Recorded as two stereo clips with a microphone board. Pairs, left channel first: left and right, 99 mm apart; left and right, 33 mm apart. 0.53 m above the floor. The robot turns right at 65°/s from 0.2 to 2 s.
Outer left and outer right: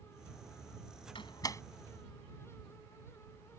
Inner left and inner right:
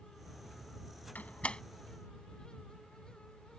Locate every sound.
1.1 s a door slam: 60° left (ahead or behind); by 1.6 s 30° left (ahead or behind)